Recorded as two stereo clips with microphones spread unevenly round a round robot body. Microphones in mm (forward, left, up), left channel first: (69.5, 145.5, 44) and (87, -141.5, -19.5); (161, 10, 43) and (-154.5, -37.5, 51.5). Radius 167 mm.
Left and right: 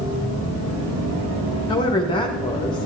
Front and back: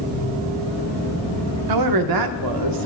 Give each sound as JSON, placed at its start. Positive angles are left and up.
{"t": 1.7, "sound": "a woman speaking", "azimuth_deg": 175, "distance_m": 0.7}